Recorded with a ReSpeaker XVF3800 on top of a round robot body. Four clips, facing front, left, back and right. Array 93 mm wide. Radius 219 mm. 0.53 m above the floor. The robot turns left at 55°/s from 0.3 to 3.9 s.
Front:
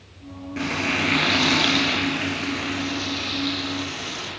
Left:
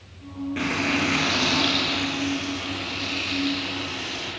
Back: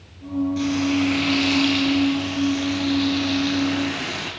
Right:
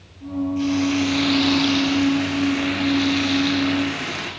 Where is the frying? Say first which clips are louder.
Right 3 dB, back 1 dB; 60° left, 6 m; by 4.3 s 125° right, 6 m.